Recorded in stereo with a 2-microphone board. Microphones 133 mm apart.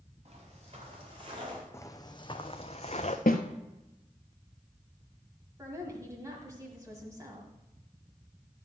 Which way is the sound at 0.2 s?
45° right (ahead or behind).